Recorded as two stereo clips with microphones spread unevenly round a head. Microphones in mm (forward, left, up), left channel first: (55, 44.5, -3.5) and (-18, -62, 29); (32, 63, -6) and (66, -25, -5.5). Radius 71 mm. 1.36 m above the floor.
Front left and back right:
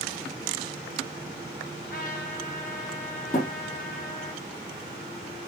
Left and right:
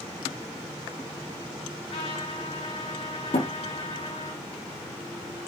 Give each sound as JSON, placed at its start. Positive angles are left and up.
{"t": 1.9, "sound": "a trumpet", "azimuth_deg": 90, "distance_m": 5.0}
{"t": 3.3, "sound": "a thud", "azimuth_deg": 105, "distance_m": 4.0}